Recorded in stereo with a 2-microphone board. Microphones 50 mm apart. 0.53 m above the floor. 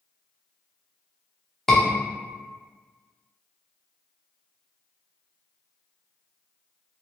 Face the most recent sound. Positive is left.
turn(degrees=10)  # may be behind; listen again after turning